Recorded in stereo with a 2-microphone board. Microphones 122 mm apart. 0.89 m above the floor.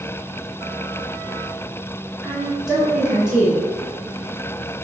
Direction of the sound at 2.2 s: 5° right (ahead or behind).